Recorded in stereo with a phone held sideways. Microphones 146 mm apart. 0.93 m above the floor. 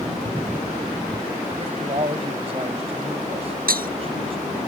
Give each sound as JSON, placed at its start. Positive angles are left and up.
{"t": 1.6, "sound": "a man speaking", "side_deg": -40}
{"t": 3.7, "sound": "breaking glass", "side_deg": -90}